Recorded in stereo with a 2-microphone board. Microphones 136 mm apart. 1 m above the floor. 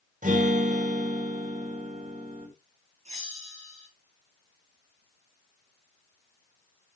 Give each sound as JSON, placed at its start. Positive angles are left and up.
{"t": 0.2, "sound": "a guitar", "side_deg": -75, "distance_m": 4.0}
{"t": 3.0, "sound": "a bell", "side_deg": -55, "distance_m": 3.5}